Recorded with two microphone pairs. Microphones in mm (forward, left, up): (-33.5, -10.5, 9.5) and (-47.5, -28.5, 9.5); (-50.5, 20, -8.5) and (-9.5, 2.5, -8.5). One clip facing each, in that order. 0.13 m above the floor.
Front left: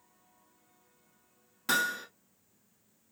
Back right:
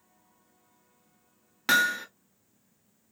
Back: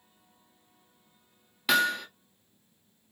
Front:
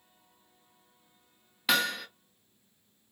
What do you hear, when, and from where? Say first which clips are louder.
1.7 s hammering: back right 6 dB, back 3 dB; 120° right, 0.8 m